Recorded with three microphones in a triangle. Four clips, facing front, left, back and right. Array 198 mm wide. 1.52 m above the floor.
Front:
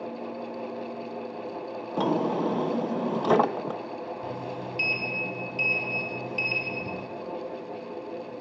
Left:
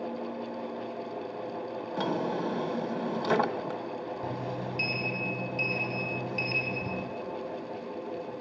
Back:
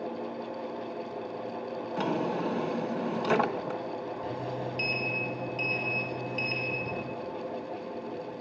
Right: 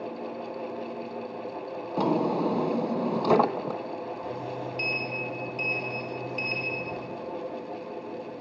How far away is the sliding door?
About 4 m.